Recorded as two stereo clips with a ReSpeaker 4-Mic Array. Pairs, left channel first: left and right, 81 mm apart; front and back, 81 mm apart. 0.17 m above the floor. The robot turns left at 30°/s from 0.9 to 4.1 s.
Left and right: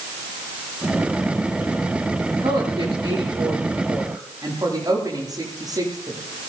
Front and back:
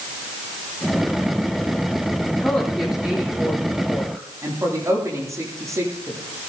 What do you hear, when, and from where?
2.4 s a woman speaking: 80° right, 8.5 m; by 6.2 s 130° right, 8.5 m